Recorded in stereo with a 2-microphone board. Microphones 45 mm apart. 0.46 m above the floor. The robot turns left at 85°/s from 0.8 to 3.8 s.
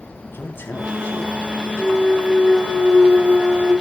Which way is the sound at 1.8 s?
60° left.